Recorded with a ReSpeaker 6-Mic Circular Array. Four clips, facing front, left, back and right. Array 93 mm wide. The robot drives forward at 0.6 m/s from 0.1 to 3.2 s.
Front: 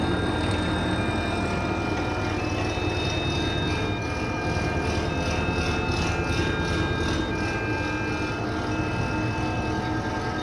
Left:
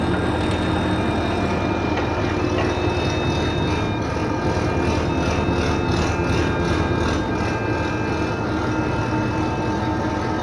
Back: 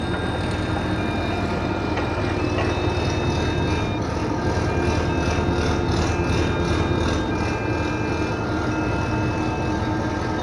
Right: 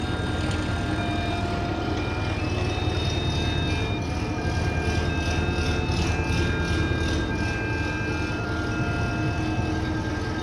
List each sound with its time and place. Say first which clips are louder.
0.0 s an engine running: left 8 dB, even; 90° left, 3 m; by 10.4 s 120° left, 3.5 m